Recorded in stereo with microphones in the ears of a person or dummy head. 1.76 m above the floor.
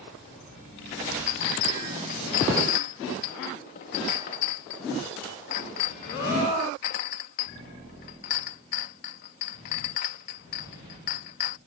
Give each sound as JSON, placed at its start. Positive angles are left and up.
{"t": 1.3, "sound": "a clink", "side_deg": 30}